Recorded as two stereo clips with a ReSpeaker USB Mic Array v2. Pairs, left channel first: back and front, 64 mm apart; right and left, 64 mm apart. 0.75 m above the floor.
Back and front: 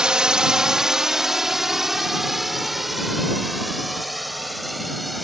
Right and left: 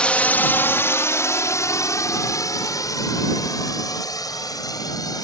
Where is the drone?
55° right; by 5.2 s 90° right.